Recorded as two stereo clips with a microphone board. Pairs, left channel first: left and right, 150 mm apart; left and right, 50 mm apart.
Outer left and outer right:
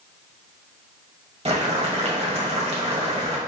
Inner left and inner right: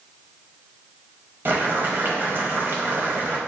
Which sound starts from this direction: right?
Boiling, at 1.4 s.